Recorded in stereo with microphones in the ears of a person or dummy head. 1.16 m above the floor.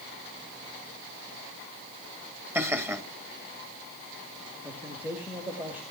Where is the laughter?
10° right (ahead or behind), 2.5 m.